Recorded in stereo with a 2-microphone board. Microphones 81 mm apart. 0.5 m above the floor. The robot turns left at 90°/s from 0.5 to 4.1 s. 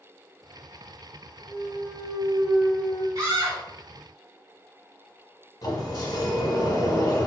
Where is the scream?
80° right, 2.0 m; by 3.6 s 125° right, 2.0 m.